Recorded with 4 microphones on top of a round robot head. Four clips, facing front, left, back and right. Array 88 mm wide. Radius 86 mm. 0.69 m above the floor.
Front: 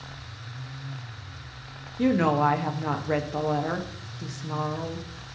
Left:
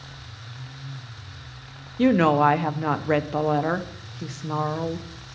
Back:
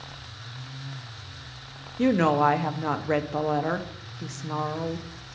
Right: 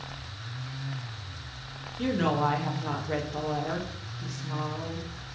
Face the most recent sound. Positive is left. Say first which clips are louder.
# left 9 dB, back 1 dB
turn(degrees=105)